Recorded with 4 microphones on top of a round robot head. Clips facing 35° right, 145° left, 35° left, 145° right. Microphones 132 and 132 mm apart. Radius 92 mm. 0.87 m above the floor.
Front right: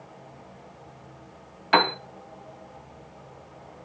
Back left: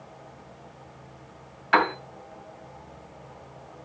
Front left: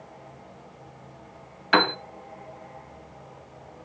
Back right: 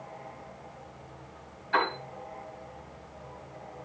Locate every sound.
1.7 s a piano: 30° left, 2 m